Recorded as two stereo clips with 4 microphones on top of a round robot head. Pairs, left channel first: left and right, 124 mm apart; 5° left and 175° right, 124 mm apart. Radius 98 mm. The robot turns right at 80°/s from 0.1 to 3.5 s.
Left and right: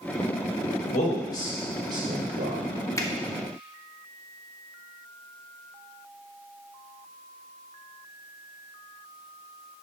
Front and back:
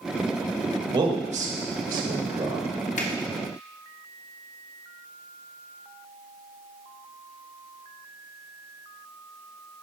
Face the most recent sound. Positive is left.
turn(degrees=65)